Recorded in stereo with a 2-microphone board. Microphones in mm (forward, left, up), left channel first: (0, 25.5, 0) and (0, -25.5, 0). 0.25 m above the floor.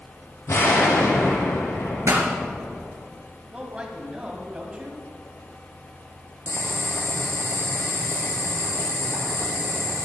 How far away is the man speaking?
About 1.9 m.